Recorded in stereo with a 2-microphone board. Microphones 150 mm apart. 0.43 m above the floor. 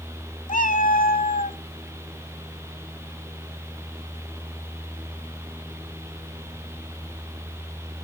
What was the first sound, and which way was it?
A cat meowing, 70° left (ahead or behind).